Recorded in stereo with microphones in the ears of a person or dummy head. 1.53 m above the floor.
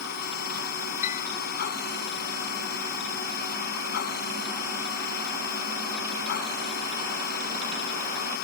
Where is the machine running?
55° left (ahead or behind).